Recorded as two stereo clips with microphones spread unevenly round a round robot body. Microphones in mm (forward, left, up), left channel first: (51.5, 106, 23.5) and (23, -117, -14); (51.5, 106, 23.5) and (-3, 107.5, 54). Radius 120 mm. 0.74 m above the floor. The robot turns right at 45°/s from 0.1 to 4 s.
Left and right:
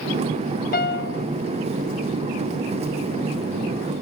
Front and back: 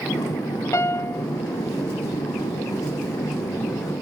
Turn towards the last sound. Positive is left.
turn(degrees=180)